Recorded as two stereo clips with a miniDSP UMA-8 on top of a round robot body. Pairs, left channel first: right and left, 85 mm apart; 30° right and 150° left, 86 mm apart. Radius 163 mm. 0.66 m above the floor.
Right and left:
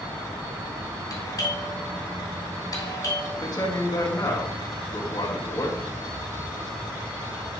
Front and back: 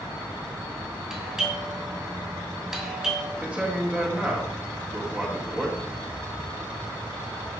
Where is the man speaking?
135° right, 1.7 m.